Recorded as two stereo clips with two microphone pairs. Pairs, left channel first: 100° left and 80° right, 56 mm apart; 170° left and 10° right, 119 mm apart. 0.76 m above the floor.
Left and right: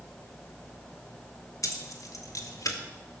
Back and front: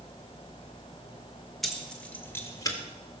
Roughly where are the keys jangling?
Left.